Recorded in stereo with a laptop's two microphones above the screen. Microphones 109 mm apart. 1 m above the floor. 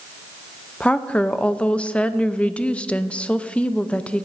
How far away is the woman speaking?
About 0.6 m.